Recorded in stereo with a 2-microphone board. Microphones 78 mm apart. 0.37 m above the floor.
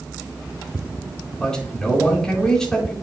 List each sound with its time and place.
1.4 s a man speaking: 10° left (ahead or behind), 4 m